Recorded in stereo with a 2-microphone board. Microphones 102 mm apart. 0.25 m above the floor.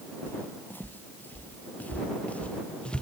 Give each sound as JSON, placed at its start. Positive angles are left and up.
{"t": 0.3, "sound": "footsteps", "side_deg": 20}